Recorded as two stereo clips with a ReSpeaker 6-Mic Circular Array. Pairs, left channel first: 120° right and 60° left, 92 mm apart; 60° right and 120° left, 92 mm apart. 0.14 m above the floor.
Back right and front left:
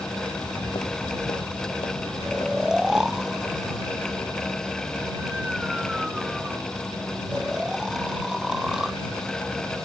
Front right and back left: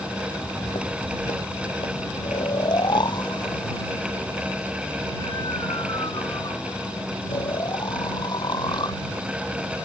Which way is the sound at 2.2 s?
25° right.